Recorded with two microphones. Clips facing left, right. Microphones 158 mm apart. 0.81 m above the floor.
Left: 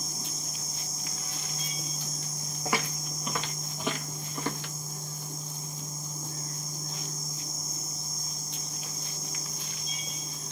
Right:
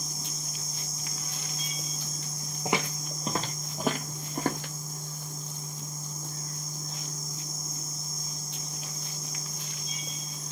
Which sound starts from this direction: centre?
Footsteps, at 2.6 s.